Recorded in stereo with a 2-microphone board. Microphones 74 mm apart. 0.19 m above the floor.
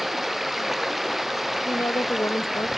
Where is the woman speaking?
45° left (ahead or behind).